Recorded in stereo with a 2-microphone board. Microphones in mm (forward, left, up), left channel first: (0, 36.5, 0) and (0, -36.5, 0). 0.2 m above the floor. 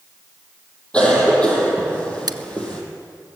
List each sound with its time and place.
0.9 s a cough: 15° left (ahead or behind), 6 m
2.3 s scissors: 70° right (ahead or behind), 0.7 m